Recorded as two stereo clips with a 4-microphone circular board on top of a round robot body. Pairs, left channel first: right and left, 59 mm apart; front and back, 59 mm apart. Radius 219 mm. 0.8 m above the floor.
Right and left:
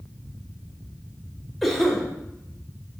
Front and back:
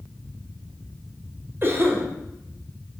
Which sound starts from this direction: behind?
A cough, at 1.6 s.